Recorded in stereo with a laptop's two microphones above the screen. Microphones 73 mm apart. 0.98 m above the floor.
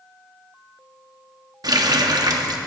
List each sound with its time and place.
1.6 s a running tap: 65° right (ahead or behind), 0.9 m